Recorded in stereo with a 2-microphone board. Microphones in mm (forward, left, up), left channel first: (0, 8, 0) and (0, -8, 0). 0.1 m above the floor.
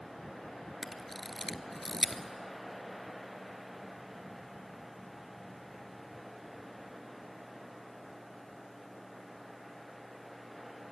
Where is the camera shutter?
10° left (ahead or behind), 0.8 m.